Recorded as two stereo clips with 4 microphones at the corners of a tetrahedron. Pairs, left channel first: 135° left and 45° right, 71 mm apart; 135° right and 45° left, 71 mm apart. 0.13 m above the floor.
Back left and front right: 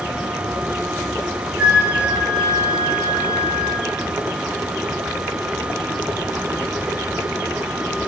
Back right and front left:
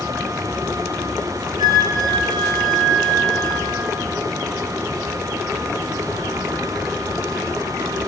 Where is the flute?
30° left, 6.5 m.